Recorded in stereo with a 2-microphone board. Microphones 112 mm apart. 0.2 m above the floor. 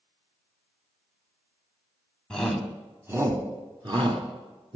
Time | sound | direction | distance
2.3 | a shout | 5° left (ahead or behind) | 1.4 m